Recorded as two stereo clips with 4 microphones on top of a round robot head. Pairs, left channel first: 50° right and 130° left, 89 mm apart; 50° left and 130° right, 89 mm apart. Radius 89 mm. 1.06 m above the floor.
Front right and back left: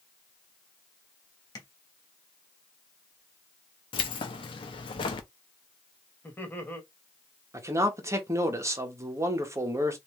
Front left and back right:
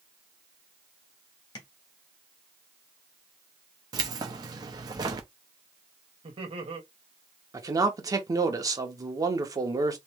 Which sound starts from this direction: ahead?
Tapping, at 1.6 s.